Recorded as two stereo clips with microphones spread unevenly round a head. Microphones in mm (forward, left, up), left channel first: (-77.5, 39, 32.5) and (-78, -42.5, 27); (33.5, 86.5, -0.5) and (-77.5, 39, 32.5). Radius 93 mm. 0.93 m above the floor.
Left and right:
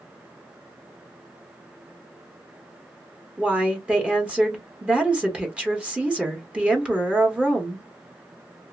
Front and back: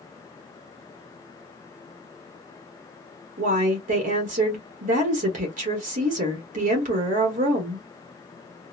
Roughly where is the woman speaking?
Behind.